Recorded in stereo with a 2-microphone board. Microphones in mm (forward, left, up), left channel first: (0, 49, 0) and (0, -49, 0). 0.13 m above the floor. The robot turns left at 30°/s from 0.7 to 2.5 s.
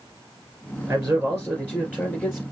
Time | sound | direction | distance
0.9 | a man speaking | 165° right | 2.5 m